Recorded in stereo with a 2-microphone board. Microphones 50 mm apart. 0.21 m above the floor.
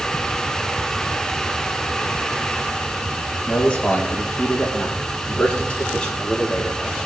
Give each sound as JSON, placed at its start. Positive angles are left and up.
{"t": 3.5, "sound": "a man speaking", "side_deg": 25, "distance_m": 6.5}